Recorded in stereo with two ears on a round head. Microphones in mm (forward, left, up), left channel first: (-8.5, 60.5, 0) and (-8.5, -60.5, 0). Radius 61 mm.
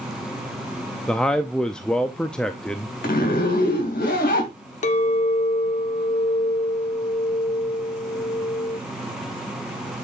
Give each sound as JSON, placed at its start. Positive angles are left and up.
{"t": 1.1, "sound": "a man speaking", "side_deg": 5, "distance_m": 0.5}
{"t": 3.0, "sound": "a zipper", "side_deg": 65, "distance_m": 3.0}
{"t": 4.8, "sound": "a clink", "side_deg": 55, "distance_m": 1.0}